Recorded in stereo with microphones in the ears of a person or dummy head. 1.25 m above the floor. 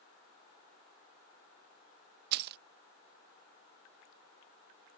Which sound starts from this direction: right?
Keys jangling, at 2.3 s.